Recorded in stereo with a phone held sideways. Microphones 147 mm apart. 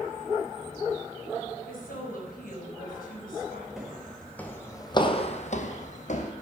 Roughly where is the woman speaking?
Left.